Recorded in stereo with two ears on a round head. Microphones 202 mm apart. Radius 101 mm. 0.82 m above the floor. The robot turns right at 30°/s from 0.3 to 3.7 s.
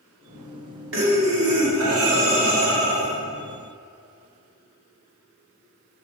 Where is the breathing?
115° right, 2 m; by 3.2 s 45° right, 2 m.